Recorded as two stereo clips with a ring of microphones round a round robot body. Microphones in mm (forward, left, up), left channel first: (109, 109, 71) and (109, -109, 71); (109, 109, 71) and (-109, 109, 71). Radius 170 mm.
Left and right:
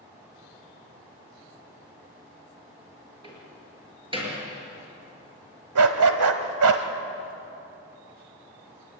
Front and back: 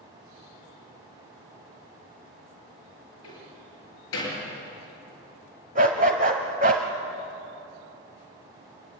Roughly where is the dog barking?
Behind right.